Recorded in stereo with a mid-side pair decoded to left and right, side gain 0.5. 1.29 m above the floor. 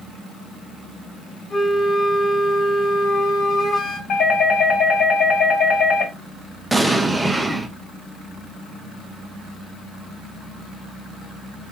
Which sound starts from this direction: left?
A doorbell, at 4.1 s.